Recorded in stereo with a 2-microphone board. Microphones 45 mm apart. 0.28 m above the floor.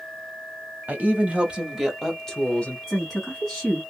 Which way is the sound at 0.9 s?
40° right (ahead or behind).